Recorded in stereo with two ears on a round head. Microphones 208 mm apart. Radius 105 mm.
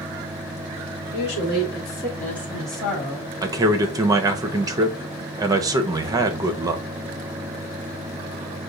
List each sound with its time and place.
1.1 s a woman speaking: 35° left (ahead or behind), 2 m; by 3.3 s 5° right (ahead or behind), 3 m
3.4 s a man speaking: 15° right (ahead or behind), 0.7 m